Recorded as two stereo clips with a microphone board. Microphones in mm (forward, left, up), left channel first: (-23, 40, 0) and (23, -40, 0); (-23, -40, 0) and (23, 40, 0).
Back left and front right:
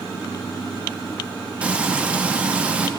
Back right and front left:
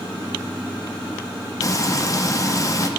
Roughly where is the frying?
Behind right.